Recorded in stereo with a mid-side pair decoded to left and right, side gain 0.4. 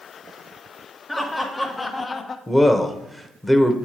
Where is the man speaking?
15° left, 1.1 m.